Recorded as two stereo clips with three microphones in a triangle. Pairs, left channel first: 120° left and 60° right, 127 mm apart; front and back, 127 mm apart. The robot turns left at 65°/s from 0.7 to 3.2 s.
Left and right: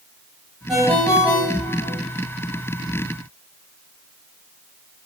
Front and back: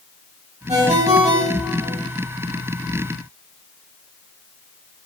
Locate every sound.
0.7 s a ringtone: 150° right, 4 m; by 2.0 s 130° left, 4 m